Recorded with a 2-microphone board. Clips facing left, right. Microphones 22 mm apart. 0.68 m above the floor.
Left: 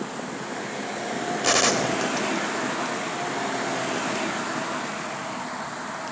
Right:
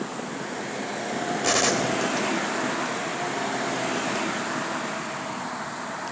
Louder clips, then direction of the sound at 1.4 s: Left 2 dB; 15° left (ahead or behind).